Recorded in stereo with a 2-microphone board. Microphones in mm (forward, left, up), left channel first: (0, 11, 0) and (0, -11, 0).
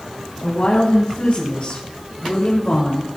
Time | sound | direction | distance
0.4 | a woman speaking | 80° left | 4.5 m